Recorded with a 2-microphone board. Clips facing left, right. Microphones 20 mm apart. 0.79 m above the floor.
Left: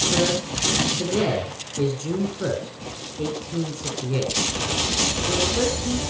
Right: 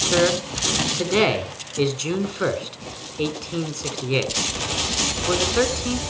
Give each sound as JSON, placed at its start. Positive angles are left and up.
{"t": 0.1, "sound": "a man speaking", "side_deg": -55, "distance_m": 2.5}